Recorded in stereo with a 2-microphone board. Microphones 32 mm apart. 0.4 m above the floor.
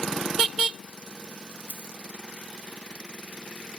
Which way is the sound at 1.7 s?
85° right.